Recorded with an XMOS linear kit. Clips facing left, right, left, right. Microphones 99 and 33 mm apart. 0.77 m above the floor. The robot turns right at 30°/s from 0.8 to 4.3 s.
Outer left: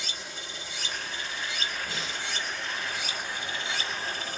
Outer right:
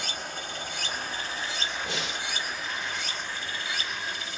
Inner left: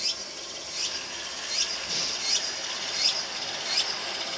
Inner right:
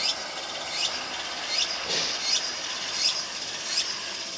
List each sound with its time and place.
0.0 s running water: 60° right, 1.1 m; by 4.4 s 45° left, 1.1 m
1.9 s breathing: 80° right, 0.7 m; by 2.3 s 70° right (ahead or behind), 0.7 m